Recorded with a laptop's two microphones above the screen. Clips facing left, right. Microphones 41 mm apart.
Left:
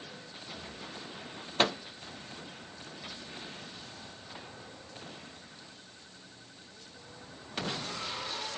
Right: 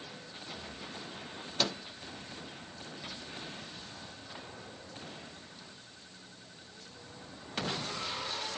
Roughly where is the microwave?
Left.